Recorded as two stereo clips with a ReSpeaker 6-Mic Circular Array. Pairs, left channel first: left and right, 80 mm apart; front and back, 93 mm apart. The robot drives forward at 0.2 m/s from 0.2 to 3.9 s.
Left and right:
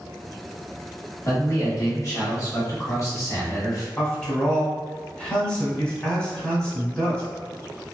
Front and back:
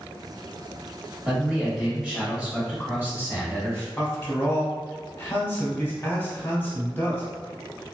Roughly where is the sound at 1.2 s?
Left.